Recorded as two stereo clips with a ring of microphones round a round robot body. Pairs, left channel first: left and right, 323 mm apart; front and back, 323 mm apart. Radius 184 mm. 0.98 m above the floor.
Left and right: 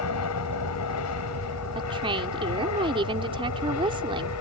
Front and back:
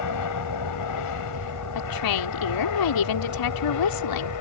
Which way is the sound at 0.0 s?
40° left.